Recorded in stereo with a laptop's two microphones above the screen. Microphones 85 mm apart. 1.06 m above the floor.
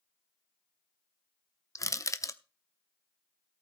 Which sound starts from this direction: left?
Crushing, at 1.8 s.